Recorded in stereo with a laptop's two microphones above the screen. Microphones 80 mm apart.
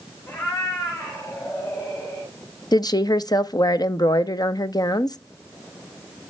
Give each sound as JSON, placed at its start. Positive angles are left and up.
{"t": 0.3, "sound": "a cat meowing", "side_deg": 45, "distance_m": 6.0}
{"t": 2.7, "sound": "a woman speaking", "side_deg": 55, "distance_m": 0.7}